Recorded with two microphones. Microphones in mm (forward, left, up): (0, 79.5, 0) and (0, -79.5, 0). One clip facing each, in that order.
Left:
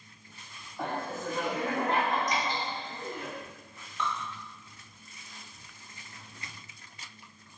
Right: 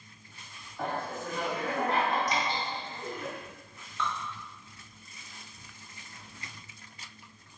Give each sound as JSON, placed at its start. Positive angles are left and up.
{"t": 0.8, "sound": "laughter", "side_deg": 20, "distance_m": 1.3}
{"t": 2.3, "sound": "dripping", "side_deg": -30, "distance_m": 1.0}
{"t": 4.0, "sound": "dripping", "side_deg": 15, "distance_m": 0.9}